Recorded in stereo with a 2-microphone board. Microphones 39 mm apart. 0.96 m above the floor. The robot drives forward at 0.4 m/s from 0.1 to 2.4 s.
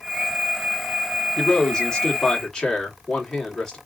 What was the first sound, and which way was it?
A man speaking, 20° left (ahead or behind).